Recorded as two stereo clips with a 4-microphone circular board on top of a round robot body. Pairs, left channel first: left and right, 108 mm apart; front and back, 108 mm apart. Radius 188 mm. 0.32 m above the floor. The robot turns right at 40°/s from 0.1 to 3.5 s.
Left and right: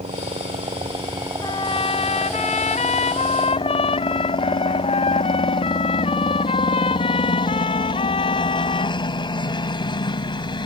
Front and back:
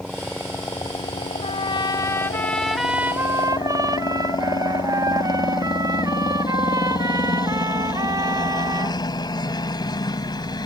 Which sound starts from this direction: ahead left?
A trumpet, at 1.4 s.